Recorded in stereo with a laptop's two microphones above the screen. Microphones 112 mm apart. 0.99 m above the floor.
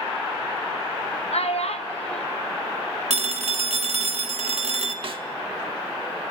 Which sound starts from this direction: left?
A child speaking, at 1.3 s.